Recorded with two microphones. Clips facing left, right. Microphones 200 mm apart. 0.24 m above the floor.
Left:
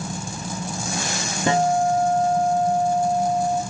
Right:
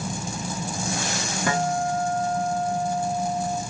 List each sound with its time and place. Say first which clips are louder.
1.5 s a guitar: left 6 dB; 25° left (ahead or behind), 0.5 m